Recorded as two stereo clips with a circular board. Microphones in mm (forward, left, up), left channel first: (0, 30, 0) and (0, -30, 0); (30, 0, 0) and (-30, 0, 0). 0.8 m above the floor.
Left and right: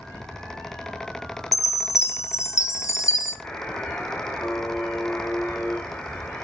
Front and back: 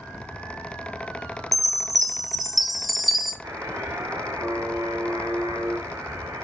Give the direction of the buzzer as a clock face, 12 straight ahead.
7 o'clock.